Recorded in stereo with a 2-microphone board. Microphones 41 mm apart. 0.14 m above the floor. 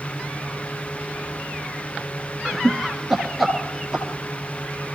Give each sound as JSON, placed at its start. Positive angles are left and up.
{"t": 2.5, "sound": "laughter", "side_deg": 5, "distance_m": 1.6}